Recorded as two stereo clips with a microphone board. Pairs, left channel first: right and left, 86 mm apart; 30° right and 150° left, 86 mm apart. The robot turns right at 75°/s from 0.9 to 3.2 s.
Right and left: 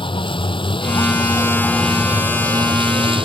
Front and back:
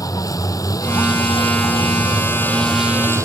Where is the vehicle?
75° right; by 3.3 s 95° left.